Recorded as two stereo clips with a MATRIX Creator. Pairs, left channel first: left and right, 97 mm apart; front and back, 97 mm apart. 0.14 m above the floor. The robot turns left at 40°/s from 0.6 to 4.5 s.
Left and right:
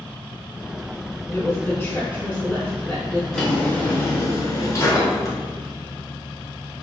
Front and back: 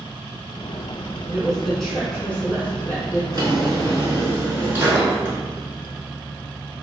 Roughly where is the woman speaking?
Left.